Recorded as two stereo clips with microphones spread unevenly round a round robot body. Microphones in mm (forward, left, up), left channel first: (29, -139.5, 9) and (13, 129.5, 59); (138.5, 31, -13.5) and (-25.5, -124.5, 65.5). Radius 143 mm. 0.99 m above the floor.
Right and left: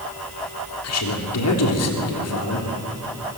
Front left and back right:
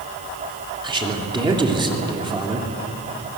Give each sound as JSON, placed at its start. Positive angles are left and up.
{"t": 0.8, "sound": "a man speaking", "azimuth_deg": -65, "distance_m": 3.0}